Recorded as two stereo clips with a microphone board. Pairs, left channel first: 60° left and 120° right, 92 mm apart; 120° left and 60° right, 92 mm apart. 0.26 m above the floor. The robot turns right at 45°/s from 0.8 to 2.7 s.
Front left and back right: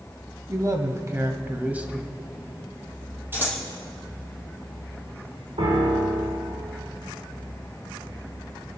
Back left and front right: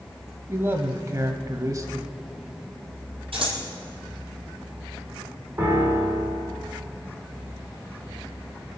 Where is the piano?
120° right, 3.5 m.